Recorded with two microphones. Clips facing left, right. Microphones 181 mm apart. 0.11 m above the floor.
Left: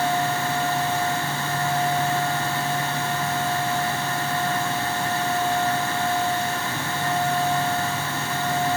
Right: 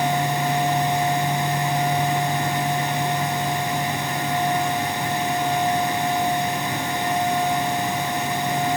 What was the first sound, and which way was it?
Only background noise.